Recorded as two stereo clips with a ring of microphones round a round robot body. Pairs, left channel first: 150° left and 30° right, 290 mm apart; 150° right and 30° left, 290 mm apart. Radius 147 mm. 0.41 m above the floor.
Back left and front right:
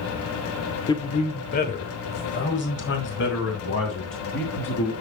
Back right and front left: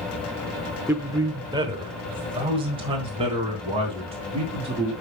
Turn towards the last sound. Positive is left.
turn(degrees=100)